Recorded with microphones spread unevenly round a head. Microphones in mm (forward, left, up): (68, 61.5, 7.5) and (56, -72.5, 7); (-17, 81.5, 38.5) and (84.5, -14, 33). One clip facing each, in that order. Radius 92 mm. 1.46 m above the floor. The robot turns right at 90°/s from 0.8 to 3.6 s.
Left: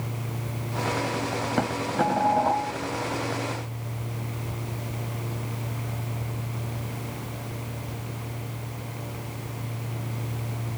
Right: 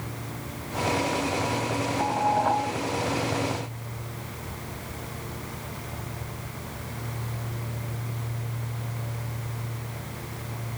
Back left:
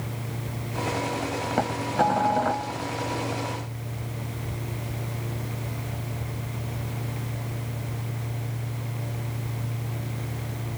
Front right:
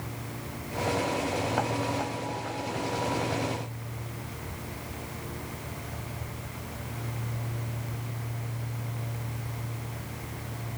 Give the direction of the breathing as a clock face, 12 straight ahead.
I don't hear breathing.